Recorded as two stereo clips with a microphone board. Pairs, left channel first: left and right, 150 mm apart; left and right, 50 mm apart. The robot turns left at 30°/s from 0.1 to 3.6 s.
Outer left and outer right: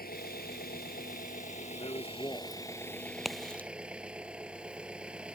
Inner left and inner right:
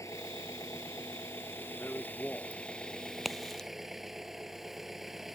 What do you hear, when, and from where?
0.0 s an engine running: 100° left; by 5.4 s 5° right
1.8 s a man speaking: 40° left (ahead or behind); by 2.6 s 15° left (ahead or behind)
3.2 s a crack: centre (ahead or behind); by 3.7 s 10° left (ahead or behind)